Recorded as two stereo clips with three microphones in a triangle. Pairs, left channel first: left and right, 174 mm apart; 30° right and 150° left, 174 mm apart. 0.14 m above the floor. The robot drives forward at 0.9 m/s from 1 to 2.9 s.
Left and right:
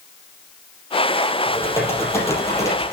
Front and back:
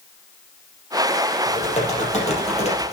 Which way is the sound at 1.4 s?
15° left.